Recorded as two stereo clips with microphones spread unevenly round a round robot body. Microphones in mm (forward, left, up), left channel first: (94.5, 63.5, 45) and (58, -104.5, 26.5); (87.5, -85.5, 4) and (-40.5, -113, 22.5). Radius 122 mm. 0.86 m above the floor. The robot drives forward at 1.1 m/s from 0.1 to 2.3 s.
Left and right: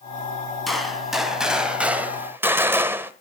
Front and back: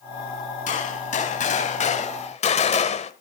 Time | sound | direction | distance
0.7 | a gunshot | 10° right | 3.5 m